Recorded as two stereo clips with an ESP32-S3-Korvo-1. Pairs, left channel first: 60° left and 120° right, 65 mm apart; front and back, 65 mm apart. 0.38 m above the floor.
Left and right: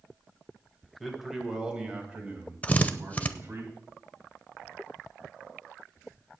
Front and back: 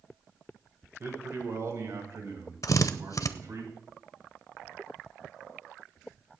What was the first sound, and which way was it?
A man speaking, 150° left.